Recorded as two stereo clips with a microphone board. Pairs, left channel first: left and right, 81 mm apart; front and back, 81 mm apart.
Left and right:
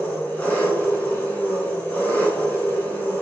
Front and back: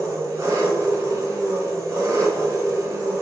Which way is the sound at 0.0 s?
150° left.